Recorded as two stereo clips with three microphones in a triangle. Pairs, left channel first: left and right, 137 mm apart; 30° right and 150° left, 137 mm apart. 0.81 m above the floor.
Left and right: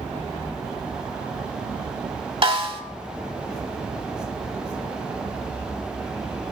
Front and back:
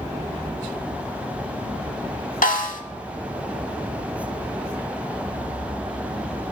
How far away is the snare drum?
About 1.1 m.